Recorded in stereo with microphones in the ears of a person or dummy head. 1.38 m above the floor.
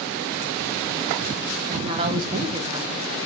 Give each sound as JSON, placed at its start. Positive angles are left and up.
{"t": 1.7, "sound": "a woman speaking", "side_deg": -30, "distance_m": 2.0}